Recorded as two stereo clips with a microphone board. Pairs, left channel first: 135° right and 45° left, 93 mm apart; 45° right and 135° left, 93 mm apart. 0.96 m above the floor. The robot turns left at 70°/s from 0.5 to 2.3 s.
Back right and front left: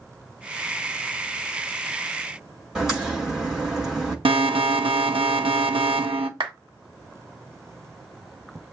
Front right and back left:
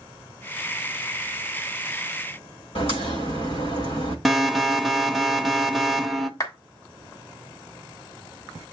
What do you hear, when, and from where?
2.8 s a crack: 40° right, 6 m
4.2 s an alarm: 45° left, 1.1 m
6.4 s a clap: 10° left, 1.7 m